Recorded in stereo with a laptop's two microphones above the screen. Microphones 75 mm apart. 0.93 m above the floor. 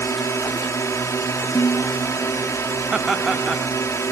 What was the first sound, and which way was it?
A drone, 45° left (ahead or behind).